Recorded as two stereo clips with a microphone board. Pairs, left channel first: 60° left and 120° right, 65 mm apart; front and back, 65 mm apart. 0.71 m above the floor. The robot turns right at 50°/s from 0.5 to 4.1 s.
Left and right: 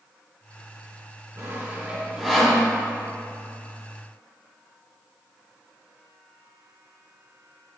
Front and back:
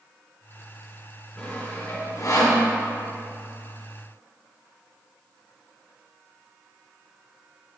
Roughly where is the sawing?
Right.